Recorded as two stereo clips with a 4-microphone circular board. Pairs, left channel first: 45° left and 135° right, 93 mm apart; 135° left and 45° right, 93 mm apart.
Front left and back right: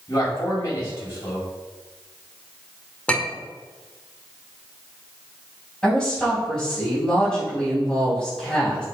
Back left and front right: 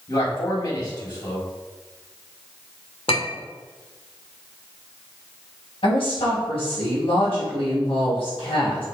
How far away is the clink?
About 1.5 m.